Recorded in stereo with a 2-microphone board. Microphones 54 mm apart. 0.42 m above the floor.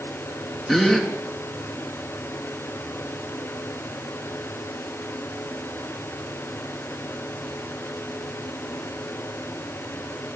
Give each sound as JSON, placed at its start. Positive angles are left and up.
{"t": 0.7, "sound": "a gasp", "side_deg": 0, "distance_m": 3.0}